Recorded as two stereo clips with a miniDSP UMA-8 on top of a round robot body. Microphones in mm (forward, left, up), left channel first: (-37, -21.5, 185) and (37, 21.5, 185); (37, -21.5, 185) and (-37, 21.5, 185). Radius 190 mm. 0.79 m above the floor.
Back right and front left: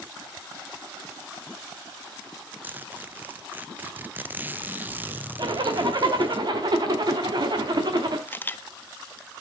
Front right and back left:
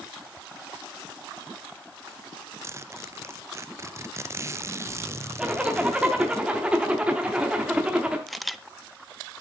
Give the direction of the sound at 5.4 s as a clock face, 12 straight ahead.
10 o'clock.